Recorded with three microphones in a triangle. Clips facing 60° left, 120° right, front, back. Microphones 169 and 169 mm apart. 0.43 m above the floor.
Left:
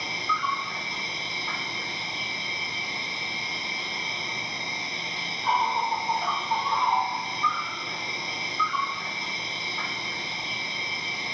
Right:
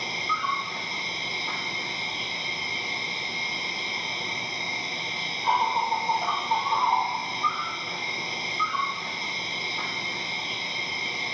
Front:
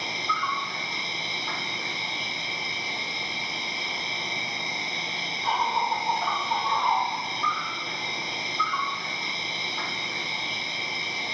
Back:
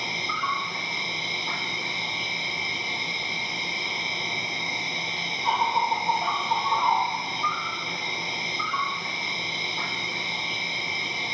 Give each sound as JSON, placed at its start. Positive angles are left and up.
{"t": 0.0, "sound": "an insect", "azimuth_deg": -140, "distance_m": 0.9}